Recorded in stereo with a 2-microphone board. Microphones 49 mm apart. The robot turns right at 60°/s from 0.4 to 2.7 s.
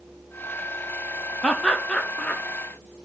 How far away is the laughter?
About 0.5 m.